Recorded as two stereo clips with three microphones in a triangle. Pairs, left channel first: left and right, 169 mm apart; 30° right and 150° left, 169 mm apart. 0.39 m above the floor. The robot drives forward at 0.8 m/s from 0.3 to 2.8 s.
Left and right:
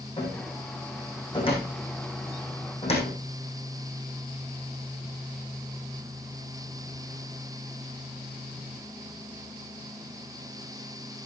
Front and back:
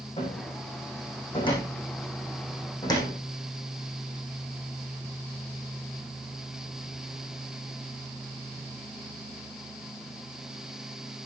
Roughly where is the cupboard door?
Ahead left.